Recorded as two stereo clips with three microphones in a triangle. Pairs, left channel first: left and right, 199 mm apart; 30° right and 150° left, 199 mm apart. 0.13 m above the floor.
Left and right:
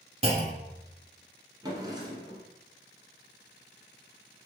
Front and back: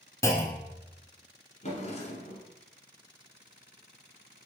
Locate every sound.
0.2 s a clunk: 90° right, 0.7 m
1.6 s a drawer: 35° right, 1.1 m